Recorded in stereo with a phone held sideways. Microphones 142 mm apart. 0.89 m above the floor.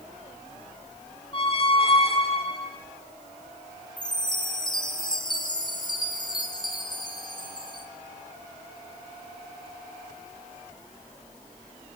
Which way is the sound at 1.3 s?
40° left (ahead or behind).